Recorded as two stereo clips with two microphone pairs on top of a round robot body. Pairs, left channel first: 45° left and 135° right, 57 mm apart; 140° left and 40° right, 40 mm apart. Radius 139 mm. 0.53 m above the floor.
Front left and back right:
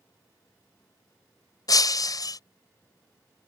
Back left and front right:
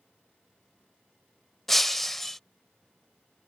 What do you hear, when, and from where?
1.7 s breaking glass: 55° left